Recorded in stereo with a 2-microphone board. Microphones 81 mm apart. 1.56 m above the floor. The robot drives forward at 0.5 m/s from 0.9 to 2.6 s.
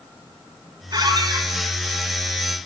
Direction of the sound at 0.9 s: 55° right (ahead or behind).